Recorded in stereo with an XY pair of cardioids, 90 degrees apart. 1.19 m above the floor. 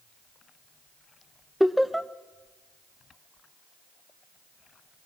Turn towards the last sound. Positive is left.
turn(degrees=0)